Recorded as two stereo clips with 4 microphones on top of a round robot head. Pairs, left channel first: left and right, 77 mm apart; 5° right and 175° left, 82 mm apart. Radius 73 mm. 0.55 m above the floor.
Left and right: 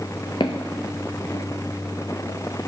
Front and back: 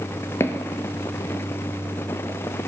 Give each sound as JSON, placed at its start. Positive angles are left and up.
{"t": 0.4, "sound": "footsteps", "azimuth_deg": 45, "distance_m": 0.7}